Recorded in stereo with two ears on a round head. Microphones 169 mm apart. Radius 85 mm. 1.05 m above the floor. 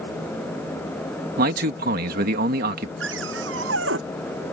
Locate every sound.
1.4 s a man speaking: 50° right (ahead or behind)
3.0 s a cupboard door: 70° right (ahead or behind)